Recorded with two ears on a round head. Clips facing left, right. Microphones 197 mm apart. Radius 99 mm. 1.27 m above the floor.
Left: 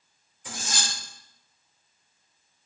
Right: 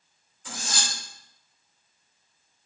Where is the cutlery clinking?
20° left (ahead or behind), 2 m.